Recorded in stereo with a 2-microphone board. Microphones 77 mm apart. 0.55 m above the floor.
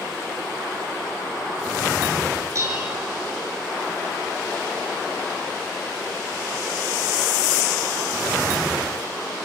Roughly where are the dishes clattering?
Right.